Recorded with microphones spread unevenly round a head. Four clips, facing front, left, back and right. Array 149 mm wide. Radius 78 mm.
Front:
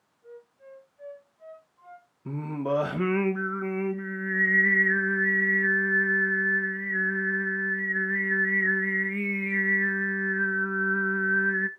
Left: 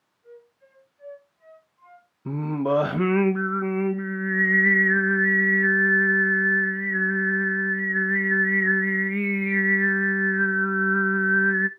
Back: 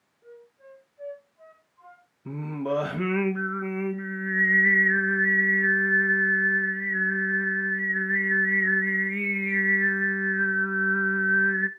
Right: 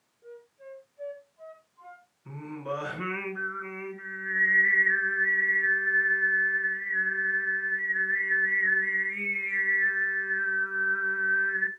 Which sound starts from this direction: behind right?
A flute, at 0.2 s.